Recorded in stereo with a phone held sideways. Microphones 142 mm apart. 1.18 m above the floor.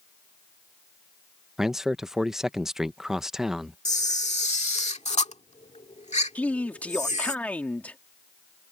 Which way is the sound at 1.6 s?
5° right (ahead or behind).